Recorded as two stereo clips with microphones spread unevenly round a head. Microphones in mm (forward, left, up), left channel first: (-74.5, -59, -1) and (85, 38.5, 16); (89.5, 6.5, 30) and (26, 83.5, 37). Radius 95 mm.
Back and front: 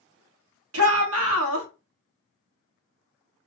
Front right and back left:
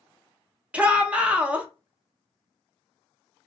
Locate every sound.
0.7 s a shout: 50° left, 1.0 m